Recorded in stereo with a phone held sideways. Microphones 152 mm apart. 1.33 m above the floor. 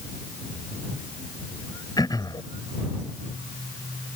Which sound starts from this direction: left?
Throat clearing, at 2.0 s.